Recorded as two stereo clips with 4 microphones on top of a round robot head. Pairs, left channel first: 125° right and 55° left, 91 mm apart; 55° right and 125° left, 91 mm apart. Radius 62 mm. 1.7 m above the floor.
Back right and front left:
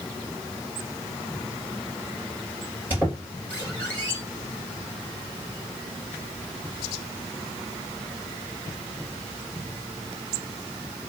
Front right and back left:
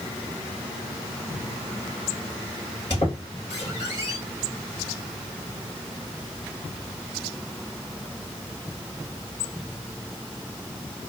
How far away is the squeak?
About 3 m.